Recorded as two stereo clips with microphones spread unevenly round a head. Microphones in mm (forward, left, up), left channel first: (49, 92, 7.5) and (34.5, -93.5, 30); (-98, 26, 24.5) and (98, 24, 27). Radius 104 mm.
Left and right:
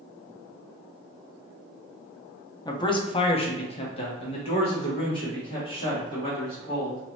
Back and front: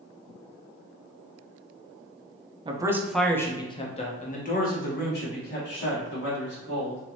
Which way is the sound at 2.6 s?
50° left.